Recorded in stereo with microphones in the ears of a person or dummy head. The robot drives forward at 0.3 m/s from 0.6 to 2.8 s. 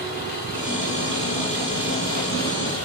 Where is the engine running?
55° left (ahead or behind), 7.5 m.